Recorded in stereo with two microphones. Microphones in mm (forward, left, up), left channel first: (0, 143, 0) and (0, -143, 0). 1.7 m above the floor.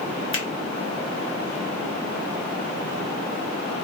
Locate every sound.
0.3 s a finger snap: 45° left (ahead or behind), 1.1 m